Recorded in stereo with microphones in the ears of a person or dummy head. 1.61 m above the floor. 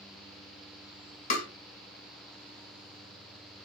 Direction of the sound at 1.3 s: 40° left (ahead or behind).